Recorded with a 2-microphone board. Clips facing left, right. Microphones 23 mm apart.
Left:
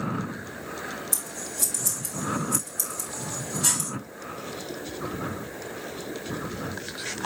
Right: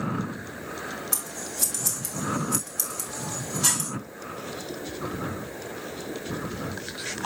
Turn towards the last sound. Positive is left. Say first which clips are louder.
# even
turn(degrees=-45)  # may be behind; listen again after turning